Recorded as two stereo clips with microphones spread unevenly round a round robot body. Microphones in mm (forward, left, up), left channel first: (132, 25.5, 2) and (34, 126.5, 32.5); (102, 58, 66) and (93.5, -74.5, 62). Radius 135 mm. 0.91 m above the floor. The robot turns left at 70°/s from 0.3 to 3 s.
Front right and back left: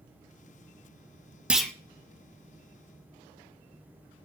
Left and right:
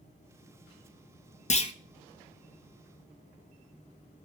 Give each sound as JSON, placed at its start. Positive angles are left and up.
{"t": 1.5, "sound": "a clunk", "azimuth_deg": 50, "distance_m": 0.9}